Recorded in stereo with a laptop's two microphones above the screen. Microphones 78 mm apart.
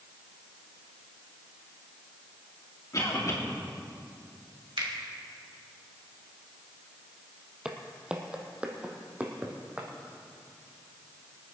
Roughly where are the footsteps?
Centre.